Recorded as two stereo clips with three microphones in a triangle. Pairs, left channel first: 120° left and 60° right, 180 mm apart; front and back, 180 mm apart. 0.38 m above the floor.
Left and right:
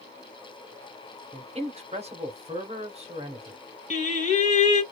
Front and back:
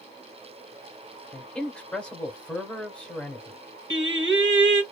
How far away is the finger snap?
I don't hear a finger snap.